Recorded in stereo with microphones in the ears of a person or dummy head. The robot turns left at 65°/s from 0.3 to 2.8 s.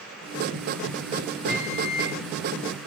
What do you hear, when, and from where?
1.5 s a microwave: 50° right, 6 m; by 2.2 s 95° right, 6 m